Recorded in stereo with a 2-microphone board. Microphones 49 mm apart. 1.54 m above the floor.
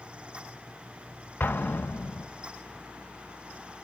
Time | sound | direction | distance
1.4 | an explosion | 45° left (ahead or behind) | 0.9 m